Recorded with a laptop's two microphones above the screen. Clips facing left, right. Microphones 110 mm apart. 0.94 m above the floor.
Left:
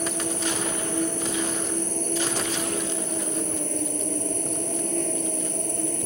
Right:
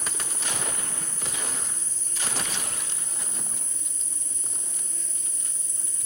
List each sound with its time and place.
0.0 s an insect: 65° left (ahead or behind)